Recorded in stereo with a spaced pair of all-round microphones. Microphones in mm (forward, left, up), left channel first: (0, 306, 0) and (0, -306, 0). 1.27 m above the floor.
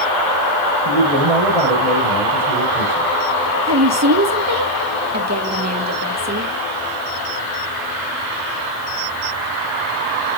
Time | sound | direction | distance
0.8 | a man speaking | 80° right | 4.5 m
3.6 | a woman speaking | 25° right (ahead or behind) | 1.8 m